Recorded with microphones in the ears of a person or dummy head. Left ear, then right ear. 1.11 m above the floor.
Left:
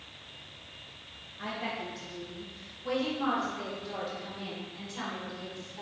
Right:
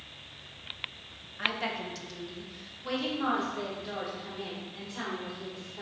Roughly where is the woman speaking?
Right.